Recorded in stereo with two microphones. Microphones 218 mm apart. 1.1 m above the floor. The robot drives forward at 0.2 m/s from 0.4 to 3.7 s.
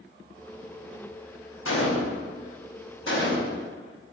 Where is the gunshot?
65° left (ahead or behind), 0.8 m; by 3.7 s 55° left (ahead or behind), 0.9 m.